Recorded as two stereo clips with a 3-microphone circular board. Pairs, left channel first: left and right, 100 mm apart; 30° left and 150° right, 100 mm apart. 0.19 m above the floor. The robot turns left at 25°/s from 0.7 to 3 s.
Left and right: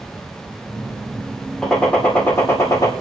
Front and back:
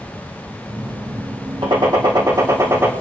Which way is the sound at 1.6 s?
175° left.